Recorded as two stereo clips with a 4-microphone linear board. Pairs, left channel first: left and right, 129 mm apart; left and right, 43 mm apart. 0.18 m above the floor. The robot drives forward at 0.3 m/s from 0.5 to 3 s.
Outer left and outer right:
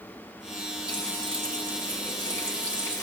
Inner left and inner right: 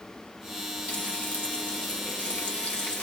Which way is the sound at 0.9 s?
35° left (ahead or behind).